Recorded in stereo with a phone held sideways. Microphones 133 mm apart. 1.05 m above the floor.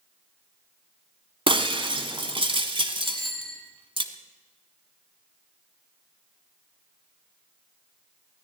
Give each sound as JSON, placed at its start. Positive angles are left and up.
{"t": 1.5, "sound": "breaking glass", "side_deg": -40, "distance_m": 1.3}
{"t": 3.0, "sound": "a bicycle bell", "side_deg": 0, "distance_m": 4.5}